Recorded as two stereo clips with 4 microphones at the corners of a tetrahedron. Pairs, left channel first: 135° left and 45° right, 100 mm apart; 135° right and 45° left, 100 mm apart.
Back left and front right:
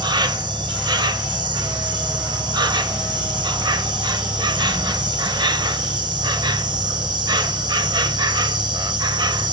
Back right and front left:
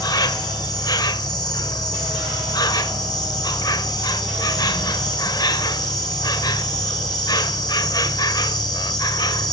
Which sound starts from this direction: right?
An insect, at 0.0 s.